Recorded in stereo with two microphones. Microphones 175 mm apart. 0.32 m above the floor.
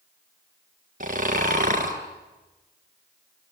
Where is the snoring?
50° right (ahead or behind), 2.5 m.